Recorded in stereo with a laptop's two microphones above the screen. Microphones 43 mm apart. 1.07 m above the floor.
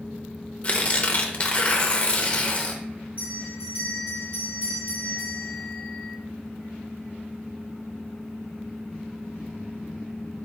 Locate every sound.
0.6 s tearing paper: 30° left (ahead or behind), 0.5 m
3.2 s a bell: 35° right (ahead or behind), 1.9 m